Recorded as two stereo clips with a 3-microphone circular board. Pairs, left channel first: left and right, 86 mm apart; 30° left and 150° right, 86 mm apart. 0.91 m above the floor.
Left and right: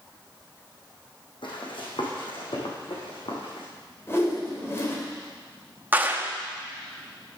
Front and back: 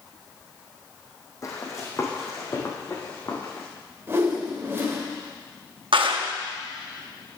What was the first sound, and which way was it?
Running footsteps, 80° left.